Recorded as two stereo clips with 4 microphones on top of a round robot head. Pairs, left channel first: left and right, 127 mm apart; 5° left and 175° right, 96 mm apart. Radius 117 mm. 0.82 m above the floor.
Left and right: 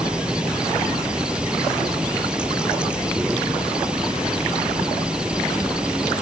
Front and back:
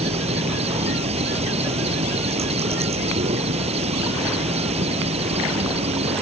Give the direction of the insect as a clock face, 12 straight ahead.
6 o'clock.